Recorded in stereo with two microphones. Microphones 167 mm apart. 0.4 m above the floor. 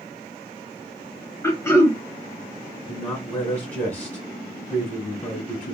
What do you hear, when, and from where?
1.4 s throat clearing: 15° left (ahead or behind), 0.8 m
2.9 s a man speaking: 10° left (ahead or behind), 1.1 m